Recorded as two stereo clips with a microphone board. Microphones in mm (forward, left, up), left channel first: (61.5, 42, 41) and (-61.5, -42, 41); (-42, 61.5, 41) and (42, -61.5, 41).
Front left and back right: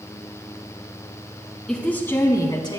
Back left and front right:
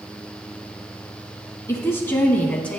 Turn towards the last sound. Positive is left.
turn(degrees=45)